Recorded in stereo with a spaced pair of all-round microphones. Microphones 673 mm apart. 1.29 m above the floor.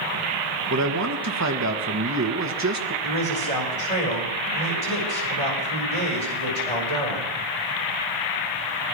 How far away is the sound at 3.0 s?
About 6 m.